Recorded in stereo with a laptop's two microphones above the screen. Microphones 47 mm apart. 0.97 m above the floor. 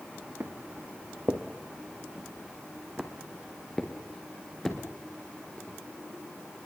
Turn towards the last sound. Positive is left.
turn(degrees=15)  # may be behind; listen again after turning